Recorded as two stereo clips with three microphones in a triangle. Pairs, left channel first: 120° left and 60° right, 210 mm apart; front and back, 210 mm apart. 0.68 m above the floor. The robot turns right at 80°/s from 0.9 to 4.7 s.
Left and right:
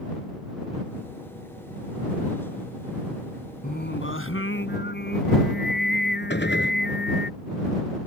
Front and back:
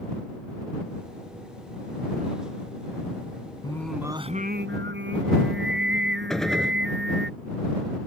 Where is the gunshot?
90° left.